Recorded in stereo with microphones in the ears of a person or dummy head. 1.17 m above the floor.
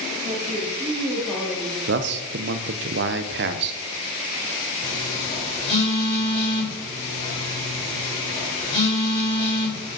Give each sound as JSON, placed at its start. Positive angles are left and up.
{"t": 0.2, "sound": "a woman speaking", "side_deg": -15, "distance_m": 2.0}
{"t": 1.9, "sound": "a man speaking", "side_deg": -55, "distance_m": 0.6}
{"t": 4.8, "sound": "a phone buzzing", "side_deg": 25, "distance_m": 4.0}